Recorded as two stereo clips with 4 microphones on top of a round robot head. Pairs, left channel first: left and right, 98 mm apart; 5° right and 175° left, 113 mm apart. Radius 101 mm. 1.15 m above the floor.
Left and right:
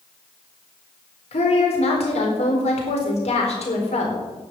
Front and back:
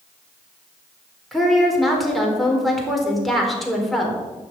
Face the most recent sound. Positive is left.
turn(degrees=85)